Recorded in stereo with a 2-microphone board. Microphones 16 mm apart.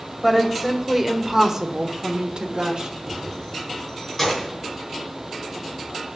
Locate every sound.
0.2 s a woman speaking: centre (ahead or behind), 2 m; by 2.9 s 50° right (ahead or behind), 1.6 m
3.0 s keys jangling: 10° left (ahead or behind), 5 m